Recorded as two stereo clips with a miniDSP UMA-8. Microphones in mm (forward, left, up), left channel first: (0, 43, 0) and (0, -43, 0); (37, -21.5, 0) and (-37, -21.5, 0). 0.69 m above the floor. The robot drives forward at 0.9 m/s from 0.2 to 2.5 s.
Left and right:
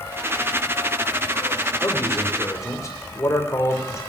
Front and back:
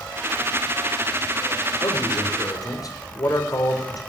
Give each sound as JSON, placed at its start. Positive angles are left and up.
{"t": 1.8, "sound": "a man speaking", "azimuth_deg": 30, "distance_m": 3.5}